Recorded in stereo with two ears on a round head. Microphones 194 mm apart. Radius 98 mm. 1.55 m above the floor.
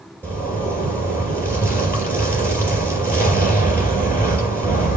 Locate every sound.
0.2 s a zipper: 10° right (ahead or behind), 5.5 m